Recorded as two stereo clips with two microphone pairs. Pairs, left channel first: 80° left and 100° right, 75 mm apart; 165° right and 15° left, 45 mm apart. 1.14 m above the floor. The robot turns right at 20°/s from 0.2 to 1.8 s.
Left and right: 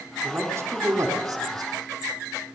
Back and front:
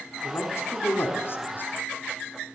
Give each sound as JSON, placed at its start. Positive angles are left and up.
{"t": 0.2, "sound": "a man speaking", "azimuth_deg": -160, "distance_m": 4.0}